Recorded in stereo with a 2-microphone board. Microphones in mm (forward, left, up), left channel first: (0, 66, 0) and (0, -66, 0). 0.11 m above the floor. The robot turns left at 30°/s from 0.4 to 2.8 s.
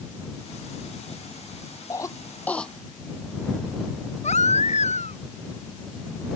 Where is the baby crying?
60° left (ahead or behind).